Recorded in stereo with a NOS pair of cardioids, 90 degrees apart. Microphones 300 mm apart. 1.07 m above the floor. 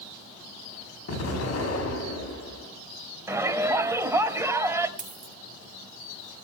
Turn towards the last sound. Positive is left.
turn(degrees=-25)